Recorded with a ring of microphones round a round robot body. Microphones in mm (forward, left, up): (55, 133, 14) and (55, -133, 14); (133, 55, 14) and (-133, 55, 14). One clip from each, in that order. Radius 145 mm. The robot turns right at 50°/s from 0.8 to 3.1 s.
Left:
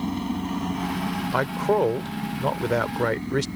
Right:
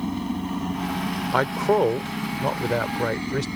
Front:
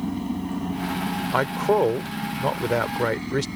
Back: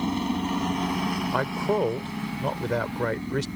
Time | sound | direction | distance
0.0 | a helicopter | 175° left | ?
1.3 | a man speaking | 40° right | ?